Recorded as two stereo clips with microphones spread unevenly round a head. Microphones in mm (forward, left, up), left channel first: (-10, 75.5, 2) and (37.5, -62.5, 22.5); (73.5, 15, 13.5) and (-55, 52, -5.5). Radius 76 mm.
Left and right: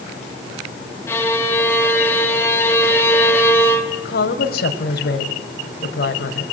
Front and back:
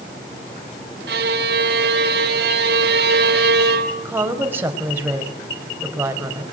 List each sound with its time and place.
1.1 s a violin: 175° right, 2.5 m
4.0 s a woman speaking: 90° left, 5 m